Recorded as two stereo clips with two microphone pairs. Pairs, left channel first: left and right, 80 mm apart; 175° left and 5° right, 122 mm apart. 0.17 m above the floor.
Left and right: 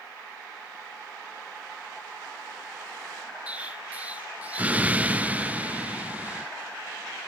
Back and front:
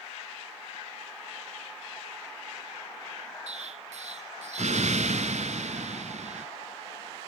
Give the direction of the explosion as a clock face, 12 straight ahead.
1 o'clock.